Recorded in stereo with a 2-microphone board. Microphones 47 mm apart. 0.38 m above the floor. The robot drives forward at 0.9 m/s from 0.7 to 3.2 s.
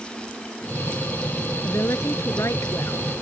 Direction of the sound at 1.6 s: 75° left (ahead or behind).